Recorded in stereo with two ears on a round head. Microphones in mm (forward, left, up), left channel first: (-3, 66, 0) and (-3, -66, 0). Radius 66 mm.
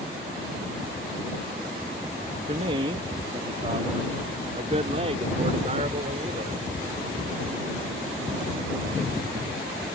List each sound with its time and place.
2.5 s a man speaking: 40° right (ahead or behind)